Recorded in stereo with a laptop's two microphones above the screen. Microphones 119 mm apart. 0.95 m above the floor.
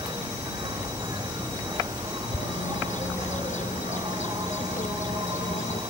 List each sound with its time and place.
0.0 s an insect: 35° right (ahead or behind)
2.3 s a bird: 85° left